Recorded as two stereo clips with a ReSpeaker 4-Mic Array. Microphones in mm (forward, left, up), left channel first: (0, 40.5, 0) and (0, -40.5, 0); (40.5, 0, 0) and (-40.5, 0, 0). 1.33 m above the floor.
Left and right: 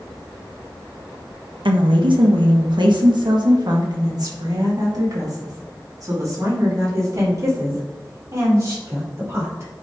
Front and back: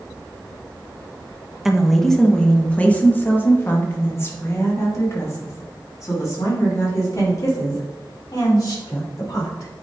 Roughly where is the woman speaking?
Right.